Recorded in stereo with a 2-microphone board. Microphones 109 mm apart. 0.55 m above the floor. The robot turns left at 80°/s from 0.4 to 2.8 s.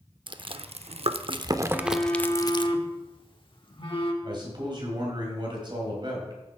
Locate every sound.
0.3 s chewing: 45° right (ahead or behind), 0.6 m; by 2.7 s 50° left (ahead or behind), 0.6 m
1.7 s a phone buzzing: 175° right, 1.1 m; by 4.1 s 95° left, 1.1 m
4.2 s a man speaking: 45° right (ahead or behind), 2.5 m